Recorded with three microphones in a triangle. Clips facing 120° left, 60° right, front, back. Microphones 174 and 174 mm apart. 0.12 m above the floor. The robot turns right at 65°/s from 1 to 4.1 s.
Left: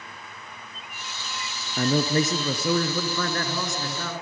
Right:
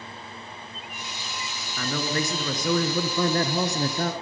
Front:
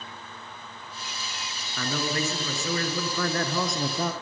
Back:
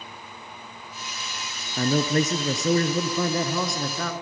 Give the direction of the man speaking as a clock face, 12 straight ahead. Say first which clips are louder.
Left 6 dB, back 7 dB; 7 o'clock.